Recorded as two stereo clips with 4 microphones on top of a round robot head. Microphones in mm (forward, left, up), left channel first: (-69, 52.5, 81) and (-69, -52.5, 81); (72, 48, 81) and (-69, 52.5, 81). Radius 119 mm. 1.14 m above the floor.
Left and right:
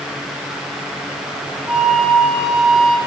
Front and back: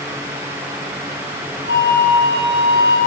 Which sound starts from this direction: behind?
A flute, at 1.7 s.